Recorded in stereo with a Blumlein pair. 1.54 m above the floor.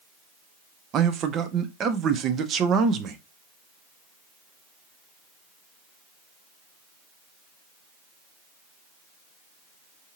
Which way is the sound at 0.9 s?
25° right.